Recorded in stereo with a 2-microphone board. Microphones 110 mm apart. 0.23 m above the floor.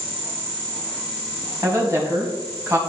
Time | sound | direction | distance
1.6 | a woman speaking | 30° right (ahead or behind) | 1.9 m